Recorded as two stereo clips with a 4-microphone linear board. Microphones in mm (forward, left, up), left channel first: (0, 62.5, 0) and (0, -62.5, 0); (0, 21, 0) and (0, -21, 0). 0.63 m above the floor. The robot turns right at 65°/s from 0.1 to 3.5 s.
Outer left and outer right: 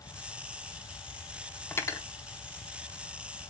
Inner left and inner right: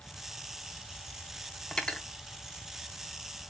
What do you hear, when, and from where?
1.7 s cutlery clinking: 15° left (ahead or behind), 0.7 m; by 2.1 s 35° left (ahead or behind), 0.7 m